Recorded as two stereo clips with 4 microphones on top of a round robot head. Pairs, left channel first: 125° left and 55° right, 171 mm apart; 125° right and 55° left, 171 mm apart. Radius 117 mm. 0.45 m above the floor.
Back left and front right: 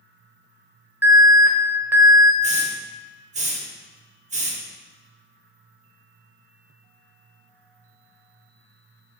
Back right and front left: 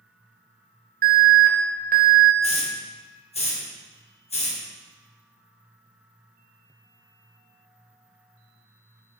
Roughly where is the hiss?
Right.